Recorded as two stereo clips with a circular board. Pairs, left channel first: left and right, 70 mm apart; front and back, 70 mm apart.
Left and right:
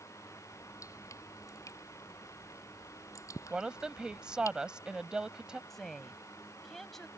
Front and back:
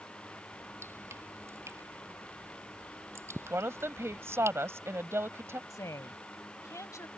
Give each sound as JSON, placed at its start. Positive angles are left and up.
{"t": 0.5, "sound": "dripping", "azimuth_deg": 130}
{"t": 3.5, "sound": "a woman speaking", "azimuth_deg": -160}
{"t": 5.7, "sound": "a woman speaking", "azimuth_deg": 5}